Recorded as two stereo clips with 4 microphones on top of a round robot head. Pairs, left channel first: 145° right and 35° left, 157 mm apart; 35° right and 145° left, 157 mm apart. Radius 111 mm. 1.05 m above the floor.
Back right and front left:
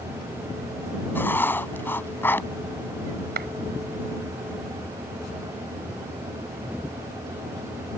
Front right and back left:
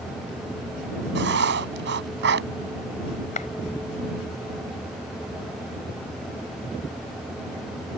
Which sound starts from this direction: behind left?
Writing, at 1.1 s.